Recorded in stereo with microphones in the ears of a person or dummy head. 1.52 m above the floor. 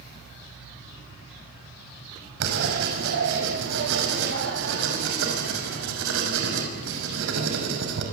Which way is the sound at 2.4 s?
70° right (ahead or behind).